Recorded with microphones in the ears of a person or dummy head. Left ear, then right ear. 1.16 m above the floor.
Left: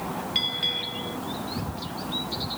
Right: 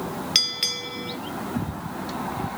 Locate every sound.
0.3 s a bell: 55° right (ahead or behind)